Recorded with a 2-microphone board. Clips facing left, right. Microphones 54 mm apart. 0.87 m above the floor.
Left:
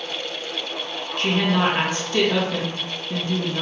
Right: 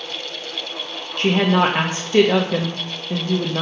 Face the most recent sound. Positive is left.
turn(degrees=-35)  # may be behind; listen again after turning